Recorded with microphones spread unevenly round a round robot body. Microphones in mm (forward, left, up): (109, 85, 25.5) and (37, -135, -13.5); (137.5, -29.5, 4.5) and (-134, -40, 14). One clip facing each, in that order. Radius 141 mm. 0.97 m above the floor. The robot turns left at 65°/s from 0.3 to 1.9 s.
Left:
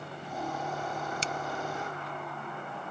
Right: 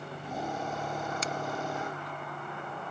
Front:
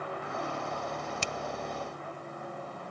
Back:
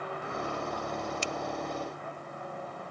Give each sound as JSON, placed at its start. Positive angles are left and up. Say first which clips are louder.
{"t": 1.2, "sound": "a finger snap", "louder": "right 1 dB, back 2 dB", "azimuth_deg": 10}